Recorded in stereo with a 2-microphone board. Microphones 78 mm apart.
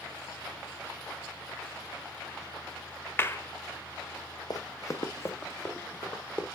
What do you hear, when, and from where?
3.2 s a clap: 30° left (ahead or behind), 0.7 m
4.5 s running footsteps: 55° left (ahead or behind), 0.9 m; by 6.5 s 25° left (ahead or behind), 2.5 m